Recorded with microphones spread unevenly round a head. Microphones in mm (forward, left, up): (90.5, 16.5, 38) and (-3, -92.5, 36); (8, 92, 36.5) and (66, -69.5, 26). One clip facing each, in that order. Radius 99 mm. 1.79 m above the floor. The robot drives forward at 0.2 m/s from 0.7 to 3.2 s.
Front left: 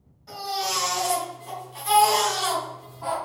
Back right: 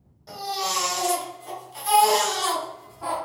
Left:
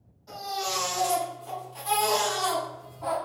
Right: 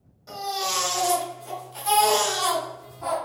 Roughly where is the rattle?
I don't hear a rattle.